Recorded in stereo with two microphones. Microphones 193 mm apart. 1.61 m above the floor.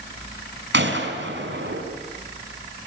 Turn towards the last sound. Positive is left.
turn(degrees=-75)  # may be behind; listen again after turning